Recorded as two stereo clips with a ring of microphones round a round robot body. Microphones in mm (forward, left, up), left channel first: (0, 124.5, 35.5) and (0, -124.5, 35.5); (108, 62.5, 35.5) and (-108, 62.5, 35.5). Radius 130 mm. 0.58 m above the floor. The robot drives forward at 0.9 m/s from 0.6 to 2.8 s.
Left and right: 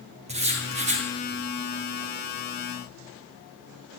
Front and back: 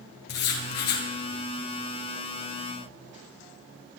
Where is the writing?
25° right, 5 m.